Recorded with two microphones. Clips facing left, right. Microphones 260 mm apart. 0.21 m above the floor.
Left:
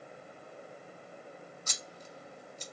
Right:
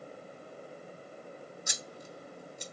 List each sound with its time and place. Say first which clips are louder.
1.7 s scissors: right 3 dB; 10° right (ahead or behind), 0.5 m